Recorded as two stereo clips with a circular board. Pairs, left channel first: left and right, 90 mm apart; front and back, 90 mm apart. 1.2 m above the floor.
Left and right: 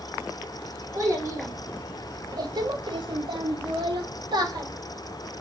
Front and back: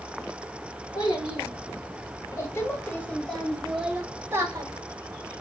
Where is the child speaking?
35° right, 1.6 m; by 4.7 s 130° right, 1.0 m.